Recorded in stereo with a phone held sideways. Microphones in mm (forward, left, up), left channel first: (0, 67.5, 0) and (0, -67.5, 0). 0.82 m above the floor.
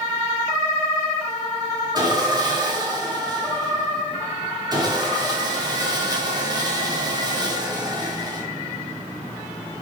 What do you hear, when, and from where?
1.9 s sawing: 30° right (ahead or behind), 2.5 m